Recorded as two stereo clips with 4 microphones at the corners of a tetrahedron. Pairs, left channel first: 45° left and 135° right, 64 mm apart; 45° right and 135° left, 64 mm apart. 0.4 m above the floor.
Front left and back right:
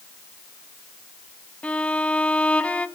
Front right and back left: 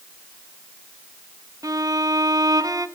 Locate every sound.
1.6 s a violin: 115° left, 1.4 m